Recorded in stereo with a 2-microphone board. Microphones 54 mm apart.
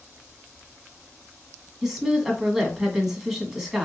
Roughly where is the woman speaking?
Centre.